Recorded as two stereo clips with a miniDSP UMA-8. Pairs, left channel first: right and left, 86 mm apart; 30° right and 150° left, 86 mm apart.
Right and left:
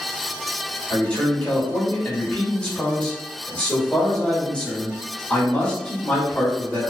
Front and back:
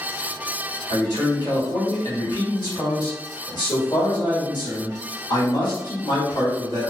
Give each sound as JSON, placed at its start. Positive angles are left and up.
{"t": 0.9, "sound": "a man speaking", "azimuth_deg": -15, "distance_m": 1.5}